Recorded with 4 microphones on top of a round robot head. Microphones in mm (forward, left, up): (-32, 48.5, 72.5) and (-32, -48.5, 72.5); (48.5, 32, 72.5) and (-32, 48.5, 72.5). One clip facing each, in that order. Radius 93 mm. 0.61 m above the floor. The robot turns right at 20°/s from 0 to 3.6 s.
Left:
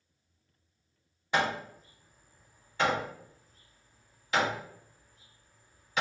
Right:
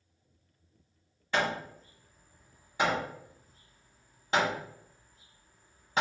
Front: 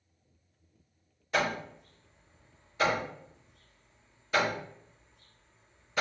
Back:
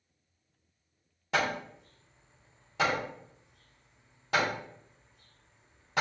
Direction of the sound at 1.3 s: 165° left.